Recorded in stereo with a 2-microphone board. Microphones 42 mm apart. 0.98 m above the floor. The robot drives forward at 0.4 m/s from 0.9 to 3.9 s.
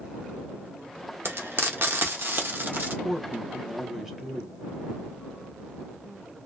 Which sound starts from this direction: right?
Frying, at 1.2 s.